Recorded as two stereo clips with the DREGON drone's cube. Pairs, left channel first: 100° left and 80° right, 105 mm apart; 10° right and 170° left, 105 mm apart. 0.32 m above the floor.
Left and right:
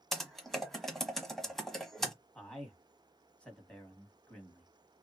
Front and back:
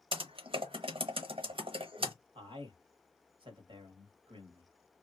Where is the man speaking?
175° left, 1.3 m.